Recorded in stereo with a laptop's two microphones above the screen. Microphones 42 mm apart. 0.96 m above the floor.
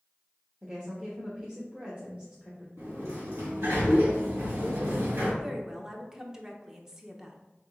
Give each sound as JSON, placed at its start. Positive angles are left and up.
{"t": 0.6, "sound": "a woman speaking", "side_deg": -25, "distance_m": 1.2}
{"t": 2.8, "sound": "a sliding door", "side_deg": -70, "distance_m": 1.8}
{"t": 5.4, "sound": "a woman speaking", "side_deg": -10, "distance_m": 0.7}